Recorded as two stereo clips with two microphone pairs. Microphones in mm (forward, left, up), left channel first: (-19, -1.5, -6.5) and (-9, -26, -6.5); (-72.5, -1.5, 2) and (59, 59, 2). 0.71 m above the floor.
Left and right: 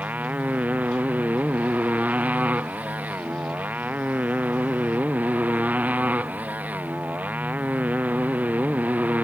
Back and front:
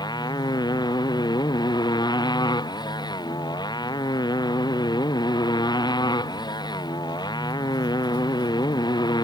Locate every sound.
0.0 s a motorcycle: 95° right